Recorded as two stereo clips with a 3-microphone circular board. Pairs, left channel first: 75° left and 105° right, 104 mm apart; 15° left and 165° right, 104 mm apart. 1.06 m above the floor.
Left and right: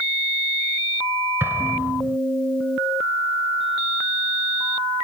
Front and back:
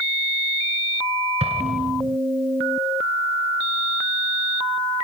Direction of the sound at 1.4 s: 175° right.